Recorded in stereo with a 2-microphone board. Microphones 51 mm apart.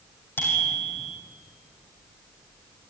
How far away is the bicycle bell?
About 6 m.